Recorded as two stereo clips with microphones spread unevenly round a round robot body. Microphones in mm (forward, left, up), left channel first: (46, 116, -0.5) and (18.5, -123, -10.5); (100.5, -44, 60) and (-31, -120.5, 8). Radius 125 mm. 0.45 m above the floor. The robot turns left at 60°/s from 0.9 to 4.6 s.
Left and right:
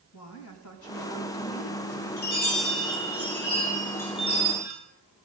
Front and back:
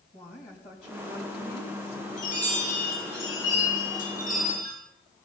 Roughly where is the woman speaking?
Left.